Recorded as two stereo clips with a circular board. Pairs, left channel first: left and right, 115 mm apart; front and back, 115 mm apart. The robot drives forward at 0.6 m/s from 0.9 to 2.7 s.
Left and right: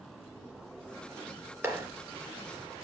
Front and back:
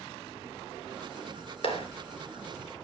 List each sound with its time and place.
1.6 s a clap: 25° right, 3 m